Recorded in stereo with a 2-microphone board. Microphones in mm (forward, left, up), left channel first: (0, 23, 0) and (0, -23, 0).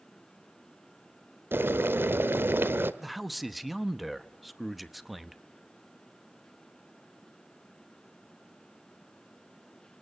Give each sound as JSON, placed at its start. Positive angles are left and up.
{"t": 1.5, "sound": "boiling", "side_deg": -55, "distance_m": 1.0}
{"t": 3.0, "sound": "a man speaking", "side_deg": 0, "distance_m": 0.9}